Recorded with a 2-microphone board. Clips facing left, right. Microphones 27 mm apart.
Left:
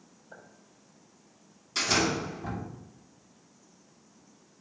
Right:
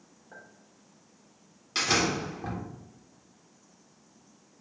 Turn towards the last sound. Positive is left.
turn(degrees=-40)  # may be behind; listen again after turning